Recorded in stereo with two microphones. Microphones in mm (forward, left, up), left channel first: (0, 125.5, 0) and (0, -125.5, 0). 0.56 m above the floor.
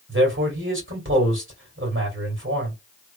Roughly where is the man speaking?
Right.